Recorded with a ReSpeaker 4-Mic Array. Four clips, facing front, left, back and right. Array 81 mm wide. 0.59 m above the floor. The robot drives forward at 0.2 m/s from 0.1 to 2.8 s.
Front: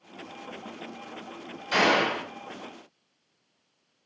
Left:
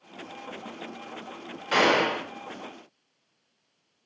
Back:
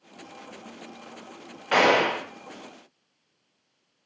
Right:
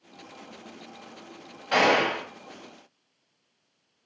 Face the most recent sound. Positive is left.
turn(degrees=170)